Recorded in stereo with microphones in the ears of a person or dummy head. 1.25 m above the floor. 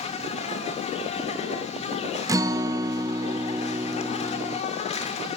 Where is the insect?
35° left (ahead or behind), 1.0 m.